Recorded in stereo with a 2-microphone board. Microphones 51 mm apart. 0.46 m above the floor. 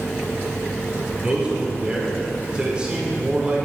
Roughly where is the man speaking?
Right.